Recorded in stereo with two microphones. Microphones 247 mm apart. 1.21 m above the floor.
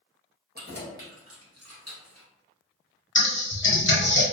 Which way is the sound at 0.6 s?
35° right (ahead or behind).